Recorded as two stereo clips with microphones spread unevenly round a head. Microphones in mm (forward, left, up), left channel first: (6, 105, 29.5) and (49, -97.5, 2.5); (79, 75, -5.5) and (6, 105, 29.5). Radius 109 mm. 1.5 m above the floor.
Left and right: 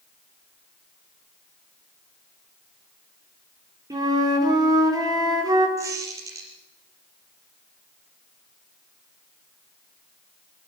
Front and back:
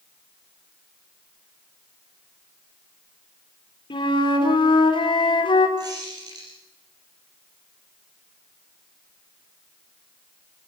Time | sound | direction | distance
3.9 | a flute | 5° right | 4 m
5.8 | a squeak | 155° right | 5 m